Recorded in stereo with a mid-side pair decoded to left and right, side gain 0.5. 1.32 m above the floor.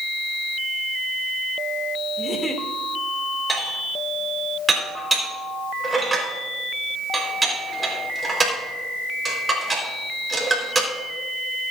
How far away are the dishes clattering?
About 4 m.